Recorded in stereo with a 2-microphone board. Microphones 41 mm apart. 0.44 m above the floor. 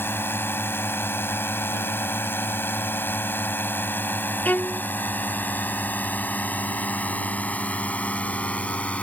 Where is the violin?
40° left (ahead or behind).